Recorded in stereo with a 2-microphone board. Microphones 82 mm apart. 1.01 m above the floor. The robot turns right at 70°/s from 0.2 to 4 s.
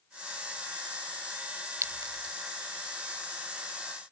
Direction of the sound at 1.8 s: 35° right (ahead or behind).